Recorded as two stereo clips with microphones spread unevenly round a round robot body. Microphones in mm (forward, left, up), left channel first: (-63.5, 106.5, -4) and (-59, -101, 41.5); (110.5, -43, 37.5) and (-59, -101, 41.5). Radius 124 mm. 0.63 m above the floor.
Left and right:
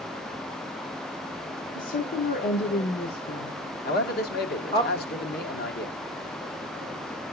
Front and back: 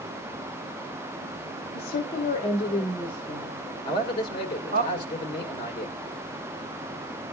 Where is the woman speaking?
45° left, 1.2 m; by 4.8 s 155° left, 1.5 m.